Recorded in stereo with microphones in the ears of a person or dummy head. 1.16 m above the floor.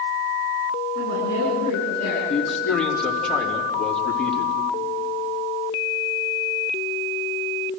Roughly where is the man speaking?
Centre.